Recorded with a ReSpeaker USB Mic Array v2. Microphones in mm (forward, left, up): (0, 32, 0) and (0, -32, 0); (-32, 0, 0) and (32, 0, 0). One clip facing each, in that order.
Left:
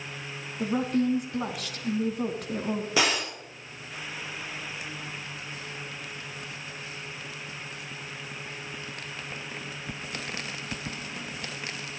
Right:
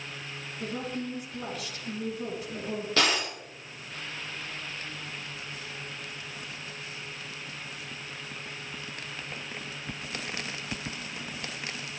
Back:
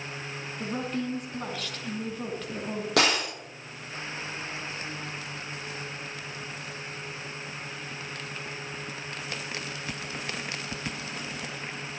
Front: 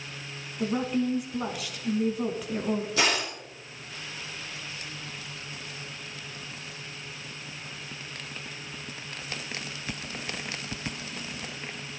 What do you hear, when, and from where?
0.6 s a woman speaking: 80° left, 3.5 m
3.0 s breaking glass: 165° left, 6.5 m